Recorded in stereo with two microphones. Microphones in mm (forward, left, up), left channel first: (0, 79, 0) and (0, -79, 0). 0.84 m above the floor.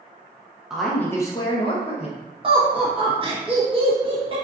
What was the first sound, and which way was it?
A woman speaking, 5° right (ahead or behind).